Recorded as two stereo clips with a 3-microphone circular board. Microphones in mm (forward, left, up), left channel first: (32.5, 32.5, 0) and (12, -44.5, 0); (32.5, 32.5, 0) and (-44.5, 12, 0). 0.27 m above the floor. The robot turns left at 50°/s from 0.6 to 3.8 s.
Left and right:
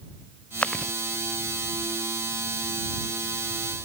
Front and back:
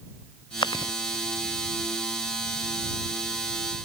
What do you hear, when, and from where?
0.6 s chewing: straight ahead; by 0.9 s 15° right